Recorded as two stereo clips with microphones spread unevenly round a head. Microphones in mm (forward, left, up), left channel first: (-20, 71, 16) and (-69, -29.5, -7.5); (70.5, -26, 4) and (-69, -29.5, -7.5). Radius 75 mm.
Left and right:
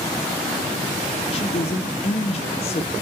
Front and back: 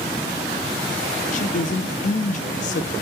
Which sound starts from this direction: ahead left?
A woman speaking, at 1.3 s.